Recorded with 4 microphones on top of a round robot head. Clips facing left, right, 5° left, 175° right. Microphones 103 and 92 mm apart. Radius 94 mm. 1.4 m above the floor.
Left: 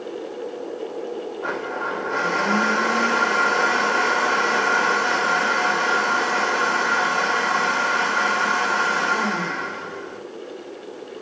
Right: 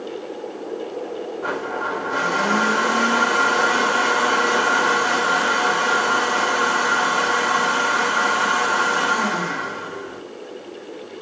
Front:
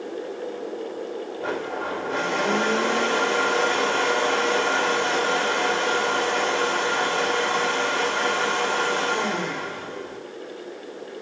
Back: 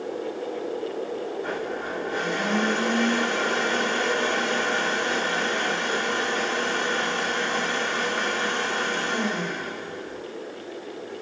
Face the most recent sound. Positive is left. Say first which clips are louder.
# right 2 dB, front 2 dB
turn(degrees=-5)